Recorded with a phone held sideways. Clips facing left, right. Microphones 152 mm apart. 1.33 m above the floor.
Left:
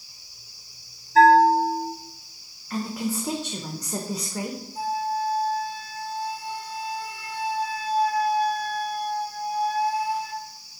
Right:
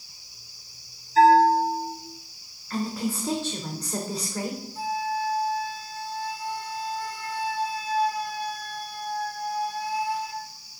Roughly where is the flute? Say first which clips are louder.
Left 3 dB; left.